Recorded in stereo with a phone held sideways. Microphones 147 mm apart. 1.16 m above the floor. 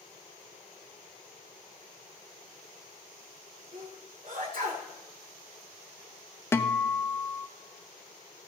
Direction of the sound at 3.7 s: 70° right (ahead or behind).